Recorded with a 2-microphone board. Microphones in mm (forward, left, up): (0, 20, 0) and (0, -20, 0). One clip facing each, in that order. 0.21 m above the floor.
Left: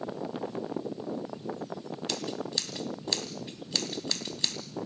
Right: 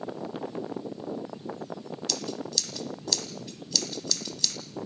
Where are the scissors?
30° left (ahead or behind), 1.8 m.